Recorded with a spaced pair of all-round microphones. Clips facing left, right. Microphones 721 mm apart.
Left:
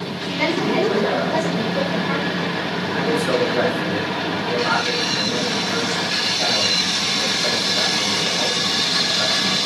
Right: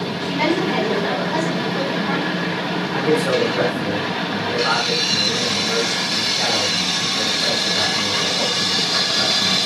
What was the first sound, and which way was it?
A woman speaking, 80° right.